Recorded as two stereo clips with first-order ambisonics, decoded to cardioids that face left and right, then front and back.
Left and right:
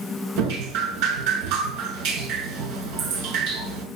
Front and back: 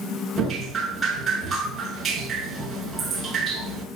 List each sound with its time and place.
0.4 s dripping: 110° right, 5 m